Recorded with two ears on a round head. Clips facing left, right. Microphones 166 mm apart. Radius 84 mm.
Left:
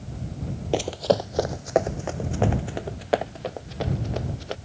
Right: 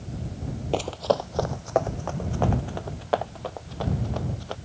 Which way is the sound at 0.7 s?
15° left (ahead or behind).